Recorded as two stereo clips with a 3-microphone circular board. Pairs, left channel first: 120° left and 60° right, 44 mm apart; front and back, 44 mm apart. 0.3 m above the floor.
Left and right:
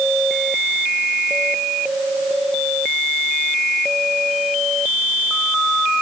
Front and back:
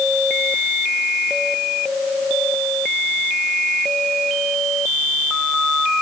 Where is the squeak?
I don't hear a squeak.